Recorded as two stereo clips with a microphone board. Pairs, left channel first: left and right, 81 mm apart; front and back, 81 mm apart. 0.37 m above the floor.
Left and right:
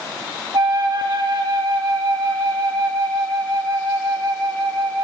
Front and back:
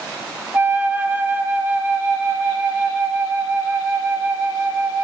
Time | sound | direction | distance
0.5 | a flute | 115° right | 2.0 m